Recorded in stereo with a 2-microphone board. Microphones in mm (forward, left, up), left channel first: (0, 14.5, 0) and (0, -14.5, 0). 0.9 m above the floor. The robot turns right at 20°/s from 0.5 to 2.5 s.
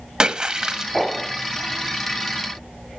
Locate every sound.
0.2 s a splash: 25° right (ahead or behind), 1.1 m; by 0.9 s 20° right (ahead or behind), 1.1 m